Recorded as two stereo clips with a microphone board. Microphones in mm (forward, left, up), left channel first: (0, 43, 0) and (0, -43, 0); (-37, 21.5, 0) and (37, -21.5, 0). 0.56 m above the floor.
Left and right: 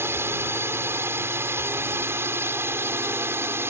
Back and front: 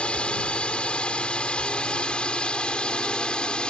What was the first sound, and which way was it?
A drone, 140° right.